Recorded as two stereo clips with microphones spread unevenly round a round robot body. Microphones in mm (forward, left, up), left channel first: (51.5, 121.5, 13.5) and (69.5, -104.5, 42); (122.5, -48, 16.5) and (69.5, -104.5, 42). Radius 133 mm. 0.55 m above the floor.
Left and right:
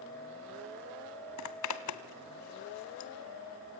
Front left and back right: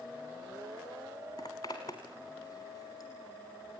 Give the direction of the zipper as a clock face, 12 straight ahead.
8 o'clock.